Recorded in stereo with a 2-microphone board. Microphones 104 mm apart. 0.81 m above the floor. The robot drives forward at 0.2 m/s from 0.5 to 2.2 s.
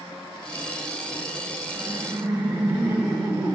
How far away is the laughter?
About 0.7 m.